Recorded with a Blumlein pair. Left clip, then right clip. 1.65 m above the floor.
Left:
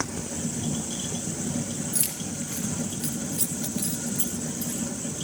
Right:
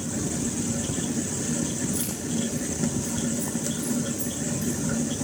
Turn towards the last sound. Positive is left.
turn(degrees=65)